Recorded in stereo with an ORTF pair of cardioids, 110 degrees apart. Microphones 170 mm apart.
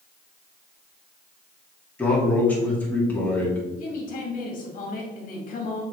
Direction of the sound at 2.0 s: 10° left.